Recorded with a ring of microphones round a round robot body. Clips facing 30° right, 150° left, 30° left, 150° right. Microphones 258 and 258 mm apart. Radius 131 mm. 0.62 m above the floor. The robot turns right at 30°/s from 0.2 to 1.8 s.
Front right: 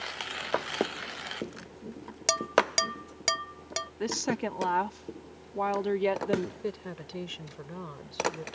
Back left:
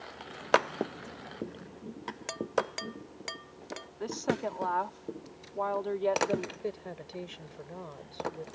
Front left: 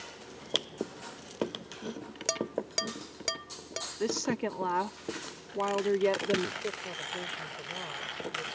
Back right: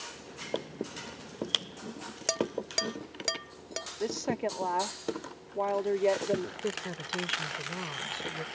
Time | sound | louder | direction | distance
2.3 | dishes clattering | front right 4 dB, back right 2 dB | 60° right | ?
4.0 | a woman speaking | front right 1 dB, front left 1 dB | 25° right | ?
6.6 | a woman speaking | front right 2 dB, back right 3 dB | 95° right | ?